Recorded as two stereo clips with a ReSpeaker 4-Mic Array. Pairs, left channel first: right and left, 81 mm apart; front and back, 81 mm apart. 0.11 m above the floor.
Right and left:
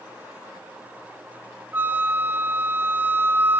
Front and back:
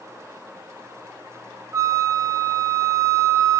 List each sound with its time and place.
1.7 s a flute: 145° left, 1.0 m